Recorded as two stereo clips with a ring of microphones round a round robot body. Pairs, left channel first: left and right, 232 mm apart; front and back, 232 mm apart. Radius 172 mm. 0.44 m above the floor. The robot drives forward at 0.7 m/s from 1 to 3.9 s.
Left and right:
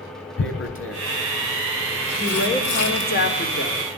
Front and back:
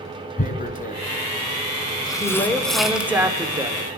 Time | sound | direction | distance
0.4 | tearing paper | 55° left | 2 m
2.2 | a woman speaking | 70° left | 1.7 m